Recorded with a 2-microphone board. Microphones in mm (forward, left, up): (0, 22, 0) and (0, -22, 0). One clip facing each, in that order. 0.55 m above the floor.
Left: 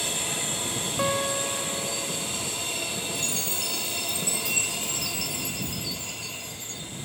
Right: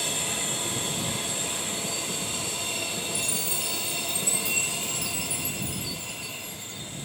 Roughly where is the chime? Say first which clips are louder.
Even; centre.